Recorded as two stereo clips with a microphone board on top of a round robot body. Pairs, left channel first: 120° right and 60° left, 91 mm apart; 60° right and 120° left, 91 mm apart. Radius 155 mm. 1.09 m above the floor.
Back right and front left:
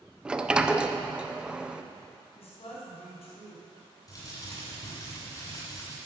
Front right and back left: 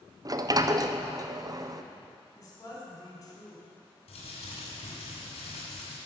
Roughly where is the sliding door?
Behind left.